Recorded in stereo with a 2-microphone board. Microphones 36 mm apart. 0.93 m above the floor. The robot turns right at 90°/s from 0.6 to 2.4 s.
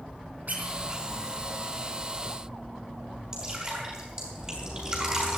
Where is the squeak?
50° right (ahead or behind), 4 m; by 0.8 s 40° right (ahead or behind), 4 m.